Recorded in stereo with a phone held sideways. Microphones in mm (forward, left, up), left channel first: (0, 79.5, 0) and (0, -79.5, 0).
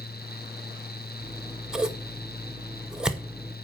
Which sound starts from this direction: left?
A fan, at 0.0 s.